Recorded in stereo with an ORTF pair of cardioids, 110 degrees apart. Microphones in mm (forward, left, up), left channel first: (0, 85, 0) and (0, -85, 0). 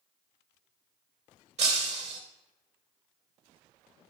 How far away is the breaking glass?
About 2.5 m.